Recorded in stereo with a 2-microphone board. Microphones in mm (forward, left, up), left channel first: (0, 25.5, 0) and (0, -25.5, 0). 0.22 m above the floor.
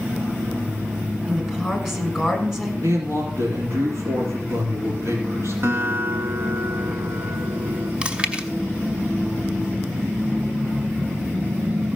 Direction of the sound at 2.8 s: 60° right (ahead or behind).